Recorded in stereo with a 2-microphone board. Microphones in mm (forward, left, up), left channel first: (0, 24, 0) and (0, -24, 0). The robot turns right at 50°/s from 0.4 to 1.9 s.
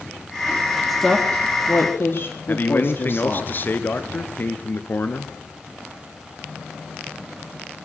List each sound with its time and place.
0.9 s a woman speaking: 5° left, 3 m; by 3.5 s 55° left, 3 m
2.5 s a man speaking: 40° left (ahead or behind), 1.4 m